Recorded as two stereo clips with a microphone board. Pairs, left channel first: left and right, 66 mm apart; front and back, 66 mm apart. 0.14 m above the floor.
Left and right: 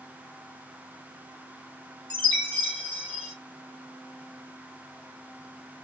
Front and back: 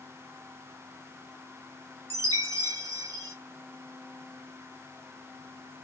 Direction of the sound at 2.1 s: 165° left.